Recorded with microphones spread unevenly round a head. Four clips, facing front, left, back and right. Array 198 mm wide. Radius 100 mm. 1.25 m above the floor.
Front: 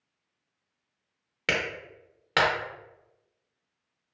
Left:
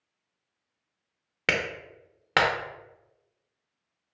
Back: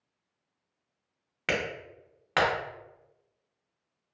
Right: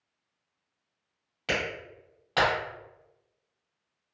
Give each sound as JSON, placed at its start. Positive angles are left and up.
{"t": 1.5, "sound": "a clap", "azimuth_deg": 85, "distance_m": 0.6}